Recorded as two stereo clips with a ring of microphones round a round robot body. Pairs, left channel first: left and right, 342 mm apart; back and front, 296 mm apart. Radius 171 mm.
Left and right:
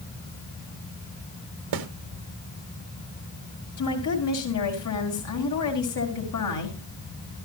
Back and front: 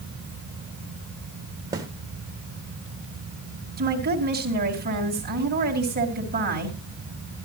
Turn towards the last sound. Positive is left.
turn(degrees=55)